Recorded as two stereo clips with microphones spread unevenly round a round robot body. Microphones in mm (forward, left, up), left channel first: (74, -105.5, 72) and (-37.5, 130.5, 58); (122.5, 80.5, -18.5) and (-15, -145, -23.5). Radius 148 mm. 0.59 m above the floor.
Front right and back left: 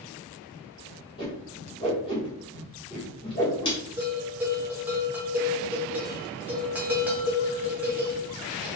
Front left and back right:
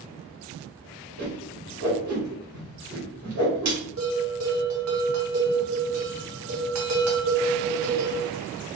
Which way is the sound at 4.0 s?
160° right.